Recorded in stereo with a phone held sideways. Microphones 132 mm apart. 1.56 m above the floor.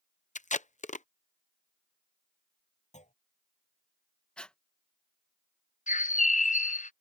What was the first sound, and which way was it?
Tape being pulled, 65° left (ahead or behind).